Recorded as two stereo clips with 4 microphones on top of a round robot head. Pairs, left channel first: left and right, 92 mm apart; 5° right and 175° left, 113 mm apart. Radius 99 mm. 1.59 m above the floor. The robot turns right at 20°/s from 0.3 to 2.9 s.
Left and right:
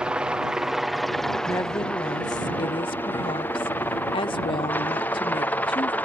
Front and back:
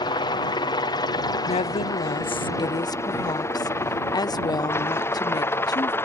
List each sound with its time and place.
0.0 s a helicopter: 15° right; by 6.0 s 40° left
1.5 s a woman speaking: 20° left; by 5.9 s 50° left